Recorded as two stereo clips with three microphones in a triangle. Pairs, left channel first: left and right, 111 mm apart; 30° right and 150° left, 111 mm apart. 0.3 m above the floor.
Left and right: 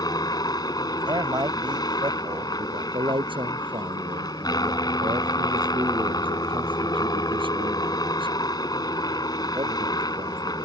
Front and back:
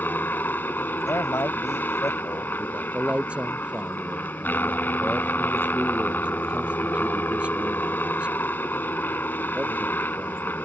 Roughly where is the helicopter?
Ahead left.